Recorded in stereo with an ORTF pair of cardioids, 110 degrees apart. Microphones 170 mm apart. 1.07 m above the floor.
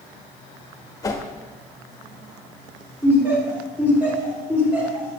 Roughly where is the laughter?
Ahead.